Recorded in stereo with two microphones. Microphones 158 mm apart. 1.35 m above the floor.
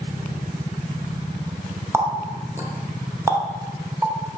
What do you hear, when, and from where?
1.9 s a running tap: 15° right (ahead or behind), 0.8 m